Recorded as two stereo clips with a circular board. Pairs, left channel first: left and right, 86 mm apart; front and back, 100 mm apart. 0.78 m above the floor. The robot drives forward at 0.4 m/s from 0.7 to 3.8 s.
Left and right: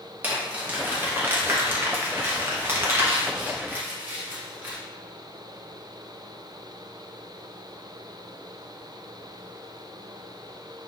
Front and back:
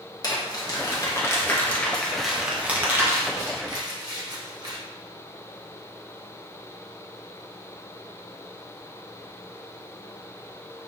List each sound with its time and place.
0.2 s crumpling: 30° right, 1.0 m; by 4.8 s 150° right, 1.0 m